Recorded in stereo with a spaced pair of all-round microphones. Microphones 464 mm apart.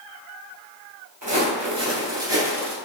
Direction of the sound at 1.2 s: 40° right (ahead or behind).